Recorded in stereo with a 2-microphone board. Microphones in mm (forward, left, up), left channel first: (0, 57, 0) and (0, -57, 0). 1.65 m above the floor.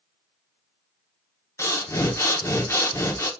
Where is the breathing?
25° left (ahead or behind), 0.8 m.